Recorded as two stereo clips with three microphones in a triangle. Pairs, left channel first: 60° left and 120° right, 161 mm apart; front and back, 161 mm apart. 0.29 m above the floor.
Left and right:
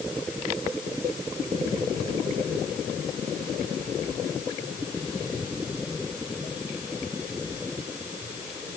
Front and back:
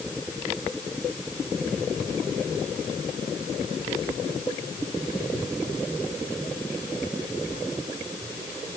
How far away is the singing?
No singing in this recording.